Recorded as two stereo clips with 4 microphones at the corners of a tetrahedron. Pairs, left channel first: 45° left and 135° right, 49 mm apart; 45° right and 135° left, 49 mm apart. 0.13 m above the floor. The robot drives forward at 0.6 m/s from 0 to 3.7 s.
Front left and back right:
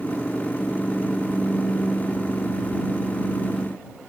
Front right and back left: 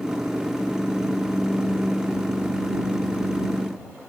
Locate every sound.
Only background noise.